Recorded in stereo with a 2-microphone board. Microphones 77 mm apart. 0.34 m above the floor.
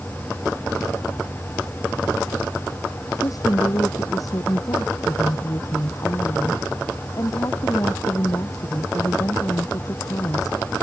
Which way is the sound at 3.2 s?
50° left (ahead or behind).